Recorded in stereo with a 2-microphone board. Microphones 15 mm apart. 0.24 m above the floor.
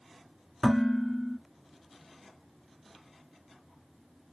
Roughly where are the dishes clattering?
Left.